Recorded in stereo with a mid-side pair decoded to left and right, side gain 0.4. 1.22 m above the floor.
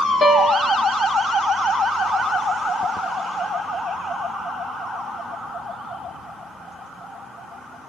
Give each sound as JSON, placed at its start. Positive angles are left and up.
{"t": 0.2, "sound": "a piano", "azimuth_deg": 35, "distance_m": 1.1}